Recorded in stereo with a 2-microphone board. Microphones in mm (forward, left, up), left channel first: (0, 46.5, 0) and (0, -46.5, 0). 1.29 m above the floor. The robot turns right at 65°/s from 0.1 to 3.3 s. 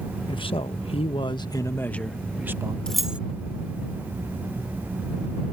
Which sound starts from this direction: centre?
Keys jangling, at 2.9 s.